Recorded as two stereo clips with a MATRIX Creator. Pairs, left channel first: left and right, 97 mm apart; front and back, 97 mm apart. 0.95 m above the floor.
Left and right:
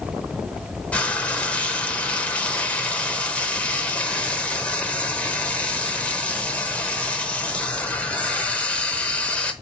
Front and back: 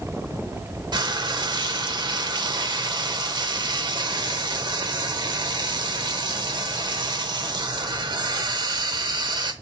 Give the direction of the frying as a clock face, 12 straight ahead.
7 o'clock.